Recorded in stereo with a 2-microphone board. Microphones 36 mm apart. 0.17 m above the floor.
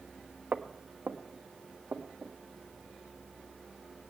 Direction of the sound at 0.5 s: 85° right.